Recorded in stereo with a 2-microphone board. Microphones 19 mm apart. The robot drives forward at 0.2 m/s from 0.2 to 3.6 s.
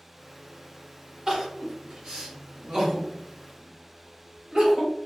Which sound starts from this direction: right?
Crying, at 1.3 s.